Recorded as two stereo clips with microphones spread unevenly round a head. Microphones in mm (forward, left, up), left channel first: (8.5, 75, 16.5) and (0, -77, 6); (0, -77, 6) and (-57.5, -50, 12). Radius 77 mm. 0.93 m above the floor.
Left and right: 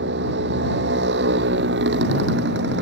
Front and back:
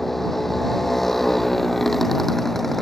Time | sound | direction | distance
0.0 | a motorcycle | 110° right | ?